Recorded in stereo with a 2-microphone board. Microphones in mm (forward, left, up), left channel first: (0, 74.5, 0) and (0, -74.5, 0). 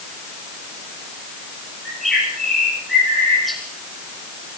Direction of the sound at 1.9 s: Centre (ahead or behind).